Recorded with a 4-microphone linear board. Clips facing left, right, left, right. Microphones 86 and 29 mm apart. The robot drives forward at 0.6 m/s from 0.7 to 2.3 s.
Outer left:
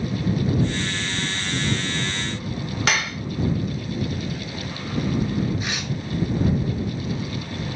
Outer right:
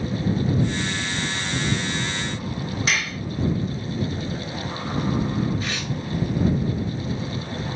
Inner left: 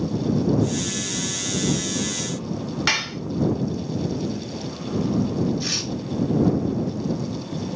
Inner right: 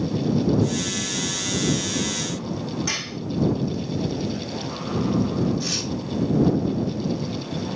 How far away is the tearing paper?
About 1.8 m.